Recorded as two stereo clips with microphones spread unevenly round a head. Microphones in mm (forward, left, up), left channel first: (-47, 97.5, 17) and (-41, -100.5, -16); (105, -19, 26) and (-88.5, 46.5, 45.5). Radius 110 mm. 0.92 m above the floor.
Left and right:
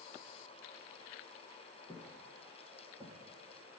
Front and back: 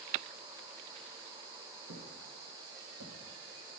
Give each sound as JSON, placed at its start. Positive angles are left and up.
{"t": 1.9, "sound": "footsteps", "azimuth_deg": 175, "distance_m": 4.0}